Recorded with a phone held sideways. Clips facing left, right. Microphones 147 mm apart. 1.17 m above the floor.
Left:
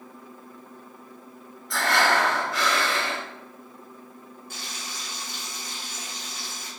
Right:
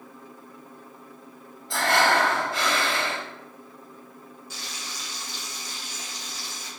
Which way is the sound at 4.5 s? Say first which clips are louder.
Left 1 dB; 55° left (ahead or behind).